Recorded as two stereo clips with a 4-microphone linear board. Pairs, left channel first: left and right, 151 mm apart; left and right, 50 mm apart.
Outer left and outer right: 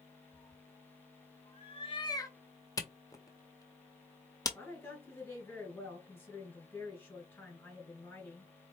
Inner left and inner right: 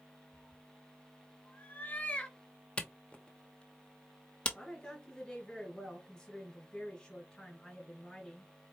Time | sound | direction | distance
0.3 | a cat meowing | 45° left (ahead or behind) | 1.3 m
2.8 | a camera shutter | 25° left (ahead or behind) | 0.6 m
4.5 | a woman speaking | 15° left (ahead or behind) | 1.8 m